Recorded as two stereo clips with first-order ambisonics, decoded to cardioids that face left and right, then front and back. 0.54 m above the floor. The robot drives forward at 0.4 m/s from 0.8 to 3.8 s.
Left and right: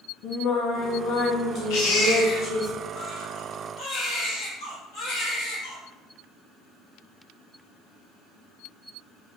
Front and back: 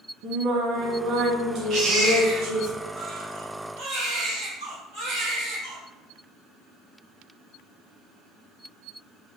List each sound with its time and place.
0.2 s singing: 135° left, 2 m; by 2.7 s 150° left, 2.5 m
1.7 s a baby crying: 120° left, 3.5 m; by 5.8 s 130° left, 4 m